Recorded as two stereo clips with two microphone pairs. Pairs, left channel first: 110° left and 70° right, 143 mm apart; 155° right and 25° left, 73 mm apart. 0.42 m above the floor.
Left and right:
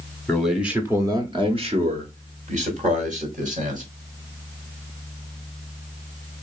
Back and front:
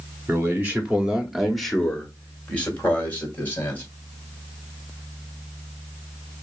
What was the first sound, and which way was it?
A man speaking, 30° left.